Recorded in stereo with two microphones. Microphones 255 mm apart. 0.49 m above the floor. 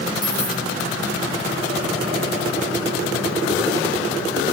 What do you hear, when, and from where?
0.2 s a dropped coin: 45° left (ahead or behind), 2.5 m